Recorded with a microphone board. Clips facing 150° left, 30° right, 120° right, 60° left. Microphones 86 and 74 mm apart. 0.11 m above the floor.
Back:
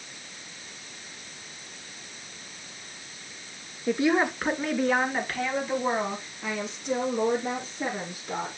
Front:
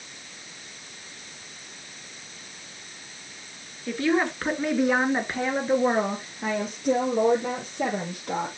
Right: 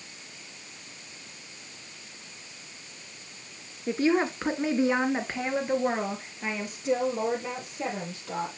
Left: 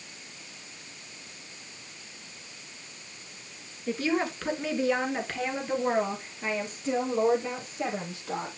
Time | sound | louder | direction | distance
3.9 | a woman speaking | back 1 dB, right 4 dB | 160° right | 1.3 m